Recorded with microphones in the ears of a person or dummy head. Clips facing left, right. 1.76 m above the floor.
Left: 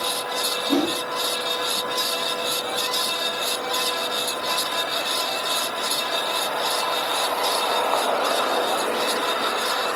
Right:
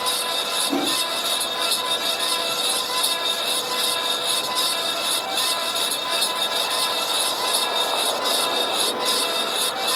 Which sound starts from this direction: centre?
A whoosh, at 0.7 s.